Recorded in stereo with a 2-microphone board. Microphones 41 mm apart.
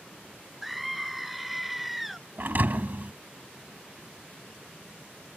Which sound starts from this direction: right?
A thud, at 2.4 s.